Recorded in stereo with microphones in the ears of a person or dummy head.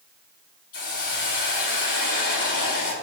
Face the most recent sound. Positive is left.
turn(degrees=50)  # may be behind; listen again after turning